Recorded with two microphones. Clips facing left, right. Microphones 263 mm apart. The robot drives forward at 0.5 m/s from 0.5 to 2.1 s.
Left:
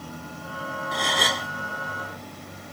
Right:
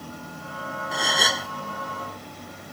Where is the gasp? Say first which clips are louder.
Even; 5° right (ahead or behind).